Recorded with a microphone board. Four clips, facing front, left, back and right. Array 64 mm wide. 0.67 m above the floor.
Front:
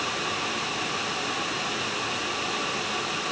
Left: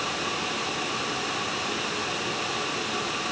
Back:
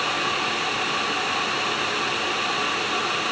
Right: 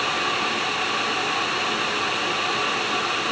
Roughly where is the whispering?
I don't hear whispering.